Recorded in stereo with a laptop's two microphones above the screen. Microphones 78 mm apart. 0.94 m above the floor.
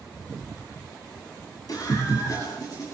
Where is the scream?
55° left (ahead or behind), 8 m.